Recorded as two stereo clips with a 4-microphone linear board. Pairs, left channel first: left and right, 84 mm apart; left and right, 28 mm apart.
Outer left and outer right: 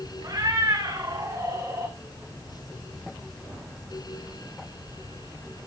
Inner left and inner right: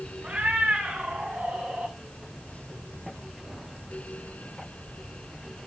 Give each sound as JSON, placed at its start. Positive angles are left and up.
{"t": 0.2, "sound": "a cat meowing", "side_deg": -40, "distance_m": 8.5}